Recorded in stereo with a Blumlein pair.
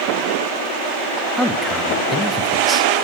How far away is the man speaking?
About 2.5 m.